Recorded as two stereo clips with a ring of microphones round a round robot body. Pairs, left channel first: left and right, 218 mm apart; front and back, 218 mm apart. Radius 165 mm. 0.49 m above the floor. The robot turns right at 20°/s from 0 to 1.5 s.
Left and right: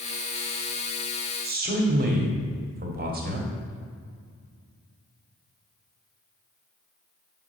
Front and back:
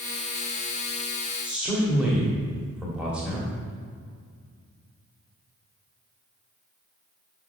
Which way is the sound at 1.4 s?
100° right.